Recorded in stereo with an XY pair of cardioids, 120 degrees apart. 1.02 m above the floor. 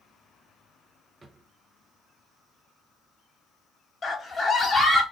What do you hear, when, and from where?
1.2 s a drawer: 25° right, 0.6 m
4.0 s a scream: 25° left, 1.5 m